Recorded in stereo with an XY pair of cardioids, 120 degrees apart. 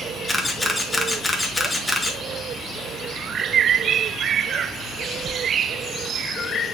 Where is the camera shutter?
15° left, 1.5 m.